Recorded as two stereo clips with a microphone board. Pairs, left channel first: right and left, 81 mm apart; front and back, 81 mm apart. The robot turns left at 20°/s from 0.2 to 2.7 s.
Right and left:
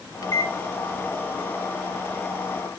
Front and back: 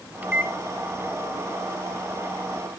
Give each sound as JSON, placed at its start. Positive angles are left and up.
{"t": 0.2, "sound": "a microwave", "azimuth_deg": -110, "distance_m": 1.0}